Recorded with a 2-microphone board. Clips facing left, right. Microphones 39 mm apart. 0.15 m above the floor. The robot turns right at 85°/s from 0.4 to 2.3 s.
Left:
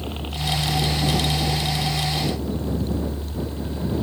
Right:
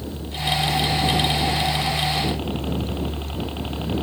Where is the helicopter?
130° left; by 4.0 s 70° right.